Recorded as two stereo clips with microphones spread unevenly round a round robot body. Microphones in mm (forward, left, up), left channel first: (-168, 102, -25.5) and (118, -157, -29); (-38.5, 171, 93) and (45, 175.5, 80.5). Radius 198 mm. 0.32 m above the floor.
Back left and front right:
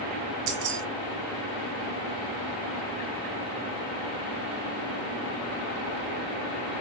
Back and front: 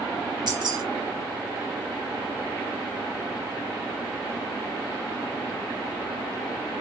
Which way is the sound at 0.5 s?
10° right.